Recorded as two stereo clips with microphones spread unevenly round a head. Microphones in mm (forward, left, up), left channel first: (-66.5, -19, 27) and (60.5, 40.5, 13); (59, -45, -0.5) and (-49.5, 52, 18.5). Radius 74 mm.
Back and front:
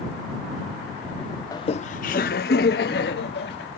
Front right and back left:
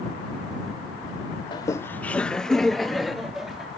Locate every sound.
1.5 s laughter: 100° right; by 3.8 s 135° right